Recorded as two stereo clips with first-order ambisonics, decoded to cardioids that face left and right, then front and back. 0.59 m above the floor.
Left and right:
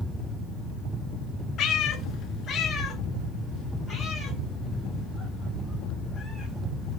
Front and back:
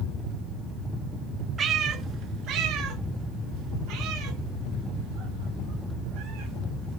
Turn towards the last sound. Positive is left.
turn(degrees=165)